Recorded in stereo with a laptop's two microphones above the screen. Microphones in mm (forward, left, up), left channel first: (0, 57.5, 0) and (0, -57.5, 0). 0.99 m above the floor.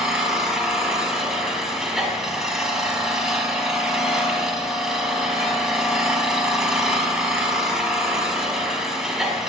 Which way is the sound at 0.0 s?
5° right (ahead or behind).